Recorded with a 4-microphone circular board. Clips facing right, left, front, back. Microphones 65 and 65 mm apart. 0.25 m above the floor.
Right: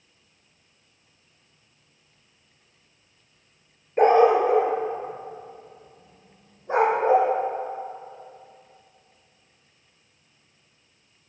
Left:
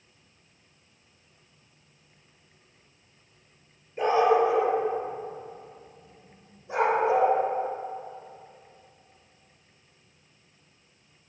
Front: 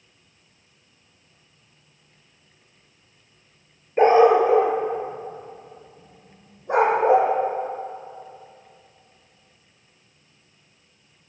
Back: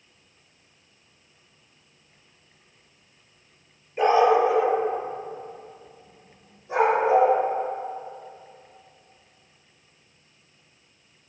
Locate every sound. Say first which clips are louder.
4.0 s a dog barking: right 5 dB, front 4 dB; 55° right, 1.6 m; by 7.3 s 40° right, 4 m